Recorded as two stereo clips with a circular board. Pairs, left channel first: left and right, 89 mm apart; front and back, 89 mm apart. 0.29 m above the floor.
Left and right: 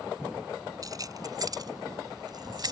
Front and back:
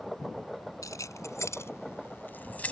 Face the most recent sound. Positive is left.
turn(degrees=-70)